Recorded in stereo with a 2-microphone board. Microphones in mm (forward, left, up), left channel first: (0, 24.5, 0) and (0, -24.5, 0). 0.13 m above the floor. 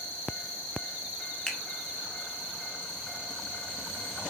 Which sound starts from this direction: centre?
A finger snap, at 1.5 s.